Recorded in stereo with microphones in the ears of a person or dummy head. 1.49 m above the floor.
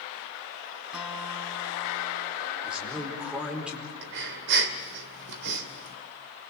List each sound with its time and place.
0.9 s a guitar: 5° right (ahead or behind), 4.5 m
2.6 s a man speaking: 5° right (ahead or behind), 4.5 m
4.0 s breathing: 65° right (ahead or behind), 2 m